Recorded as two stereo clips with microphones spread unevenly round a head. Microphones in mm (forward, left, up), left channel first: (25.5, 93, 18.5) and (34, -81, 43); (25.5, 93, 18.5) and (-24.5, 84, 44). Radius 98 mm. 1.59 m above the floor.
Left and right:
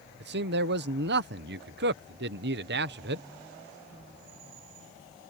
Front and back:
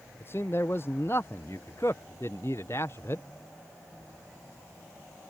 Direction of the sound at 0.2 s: 65° right.